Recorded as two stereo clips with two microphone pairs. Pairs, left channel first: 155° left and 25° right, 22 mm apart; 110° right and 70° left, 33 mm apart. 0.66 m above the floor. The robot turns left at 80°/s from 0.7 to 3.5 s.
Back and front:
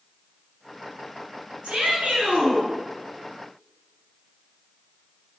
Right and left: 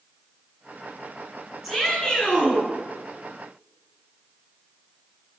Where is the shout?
15° right, 9 m; by 2.7 s 95° right, 9 m.